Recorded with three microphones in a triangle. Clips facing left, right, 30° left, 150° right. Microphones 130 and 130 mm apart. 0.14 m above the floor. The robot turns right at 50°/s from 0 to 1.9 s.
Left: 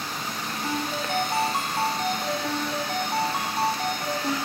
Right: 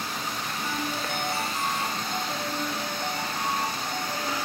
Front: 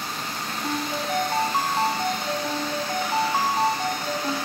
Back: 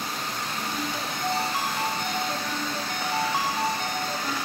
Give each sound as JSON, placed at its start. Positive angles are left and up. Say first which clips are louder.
{"t": 0.6, "sound": "a ringtone", "louder": "left 4 dB, front 7 dB", "azimuth_deg": 25, "distance_m": 5.0}